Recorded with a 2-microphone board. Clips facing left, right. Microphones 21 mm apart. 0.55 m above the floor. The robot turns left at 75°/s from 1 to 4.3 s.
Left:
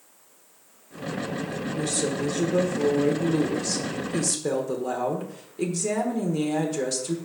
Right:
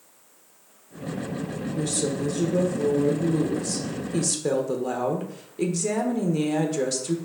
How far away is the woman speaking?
About 1.1 m.